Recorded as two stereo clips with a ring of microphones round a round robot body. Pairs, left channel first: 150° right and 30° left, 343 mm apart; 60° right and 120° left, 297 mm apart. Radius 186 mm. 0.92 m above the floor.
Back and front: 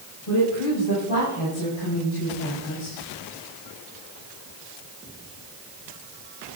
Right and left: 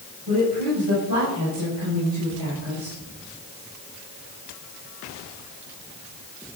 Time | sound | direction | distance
0.3 | a woman speaking | 170° left | 6 m